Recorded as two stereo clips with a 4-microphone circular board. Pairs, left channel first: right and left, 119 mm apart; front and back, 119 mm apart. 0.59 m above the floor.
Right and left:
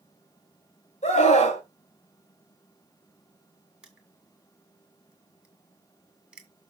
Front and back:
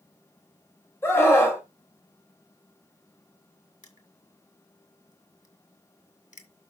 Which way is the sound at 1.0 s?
70° right.